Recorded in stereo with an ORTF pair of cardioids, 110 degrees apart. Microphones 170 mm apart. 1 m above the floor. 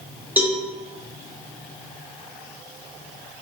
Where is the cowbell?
10° right, 0.7 m.